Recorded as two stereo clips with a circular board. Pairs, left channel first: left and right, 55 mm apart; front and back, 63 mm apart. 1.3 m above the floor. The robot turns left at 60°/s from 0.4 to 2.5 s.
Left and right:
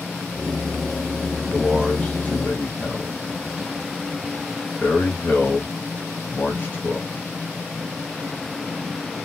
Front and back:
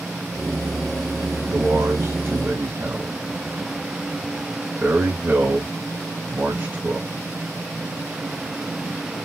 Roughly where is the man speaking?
Behind.